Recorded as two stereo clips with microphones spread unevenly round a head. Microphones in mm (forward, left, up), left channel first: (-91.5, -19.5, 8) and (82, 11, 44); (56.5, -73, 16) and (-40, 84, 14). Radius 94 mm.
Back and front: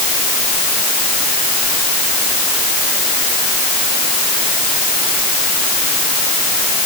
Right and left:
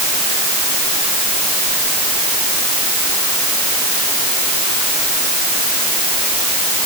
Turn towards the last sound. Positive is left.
No sound to turn to.